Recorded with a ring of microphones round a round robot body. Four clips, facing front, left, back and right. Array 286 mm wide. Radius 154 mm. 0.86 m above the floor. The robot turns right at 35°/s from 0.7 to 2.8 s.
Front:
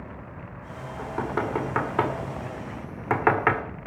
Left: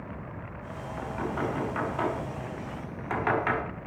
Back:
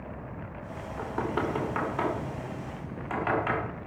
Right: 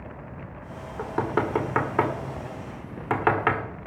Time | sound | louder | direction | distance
1.0 | knocking | right 6 dB, front 2 dB | 95° right | 1.7 m